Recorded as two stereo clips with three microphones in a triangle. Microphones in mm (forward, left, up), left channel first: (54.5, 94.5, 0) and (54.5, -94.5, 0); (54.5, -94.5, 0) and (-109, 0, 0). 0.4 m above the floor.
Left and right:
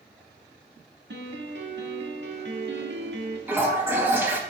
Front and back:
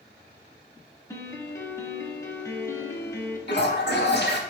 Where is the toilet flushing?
10° right, 0.5 m.